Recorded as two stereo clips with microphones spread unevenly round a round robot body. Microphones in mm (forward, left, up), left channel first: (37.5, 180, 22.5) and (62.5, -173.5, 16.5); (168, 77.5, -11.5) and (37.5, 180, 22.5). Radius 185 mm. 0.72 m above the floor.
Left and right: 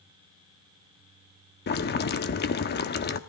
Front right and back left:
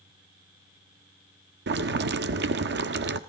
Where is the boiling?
155° left, 1.0 m.